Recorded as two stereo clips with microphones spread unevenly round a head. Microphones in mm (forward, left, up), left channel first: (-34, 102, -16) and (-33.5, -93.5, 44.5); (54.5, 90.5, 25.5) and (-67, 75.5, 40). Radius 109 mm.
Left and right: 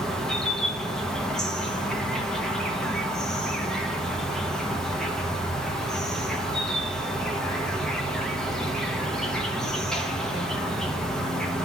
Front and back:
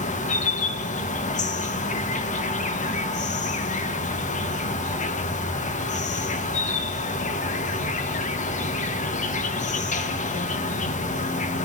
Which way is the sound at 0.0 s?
10° left.